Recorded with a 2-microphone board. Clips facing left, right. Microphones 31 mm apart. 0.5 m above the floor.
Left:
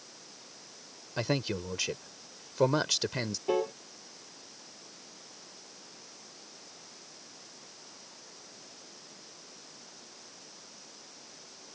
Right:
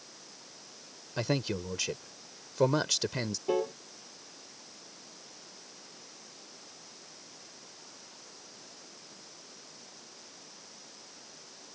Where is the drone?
I don't hear a drone.